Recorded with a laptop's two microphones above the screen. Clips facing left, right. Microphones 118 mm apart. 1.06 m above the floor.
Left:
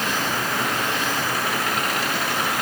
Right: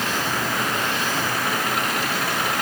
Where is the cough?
No cough in this recording.